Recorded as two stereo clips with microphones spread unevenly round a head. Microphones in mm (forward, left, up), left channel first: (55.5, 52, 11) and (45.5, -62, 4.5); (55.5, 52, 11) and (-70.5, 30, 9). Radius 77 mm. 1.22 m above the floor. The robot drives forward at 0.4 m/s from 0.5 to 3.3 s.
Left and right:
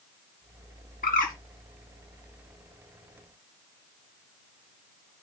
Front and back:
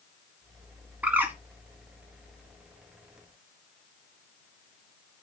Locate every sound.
1.0 s a bird: 110° left, 1.7 m; by 1.3 s 115° left, 1.8 m